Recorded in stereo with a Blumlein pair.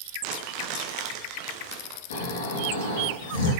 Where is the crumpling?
40° right, 1.0 m.